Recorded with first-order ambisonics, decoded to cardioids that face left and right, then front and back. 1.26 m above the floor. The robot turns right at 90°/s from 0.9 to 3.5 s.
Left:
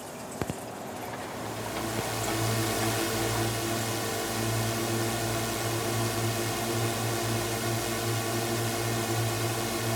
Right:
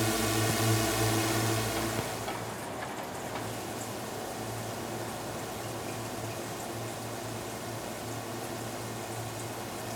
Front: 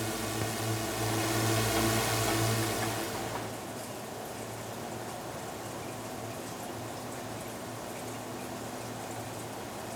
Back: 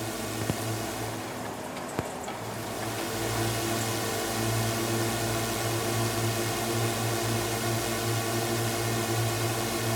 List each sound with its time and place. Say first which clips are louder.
0.0 s a drone: right 7 dB, back 1 dB; 90° right; by 10.0 s 145° left